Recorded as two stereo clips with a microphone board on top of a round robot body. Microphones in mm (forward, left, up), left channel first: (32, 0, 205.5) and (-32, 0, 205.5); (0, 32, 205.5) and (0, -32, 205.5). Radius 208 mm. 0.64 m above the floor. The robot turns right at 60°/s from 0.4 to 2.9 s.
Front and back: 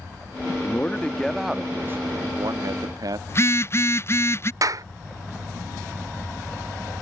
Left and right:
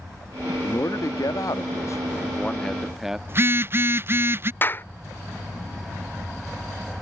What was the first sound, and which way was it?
A man speaking, 50° left.